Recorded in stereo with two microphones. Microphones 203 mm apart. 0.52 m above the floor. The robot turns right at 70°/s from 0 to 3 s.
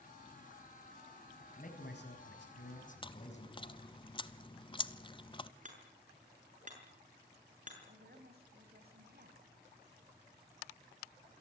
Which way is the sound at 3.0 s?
25° left (ahead or behind).